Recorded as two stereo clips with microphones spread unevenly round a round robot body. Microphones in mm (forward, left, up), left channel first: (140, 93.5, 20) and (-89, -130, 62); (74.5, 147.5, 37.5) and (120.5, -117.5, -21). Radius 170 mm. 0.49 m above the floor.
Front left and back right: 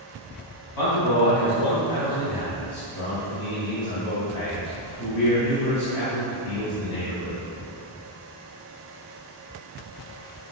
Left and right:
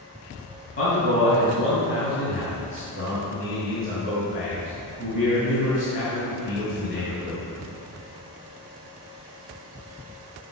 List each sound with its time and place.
0.8 s a man speaking: 50° left, 3 m